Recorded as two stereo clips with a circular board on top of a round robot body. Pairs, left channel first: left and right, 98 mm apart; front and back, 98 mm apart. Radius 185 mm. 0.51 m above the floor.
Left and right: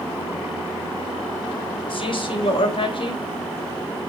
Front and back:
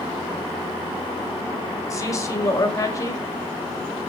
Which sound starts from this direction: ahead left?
A man speaking, at 1.9 s.